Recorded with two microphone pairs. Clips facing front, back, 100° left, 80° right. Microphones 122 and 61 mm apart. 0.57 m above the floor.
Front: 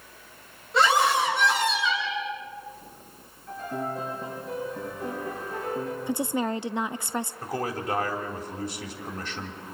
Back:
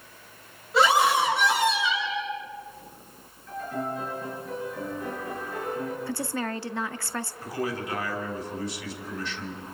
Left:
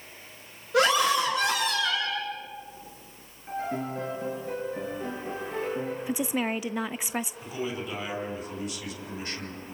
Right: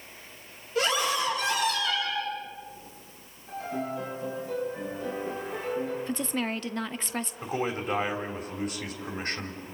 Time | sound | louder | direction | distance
0.7 | a scream | back 1 dB, left 5 dB | 95° left | 7 m
3.5 | a piano | even, left 1 dB | 55° left | 9.5 m
6.1 | a woman speaking | front 4 dB, left 2 dB | 35° left | 0.6 m
7.4 | a man speaking | front 1 dB, right 3 dB | 35° right | 3.5 m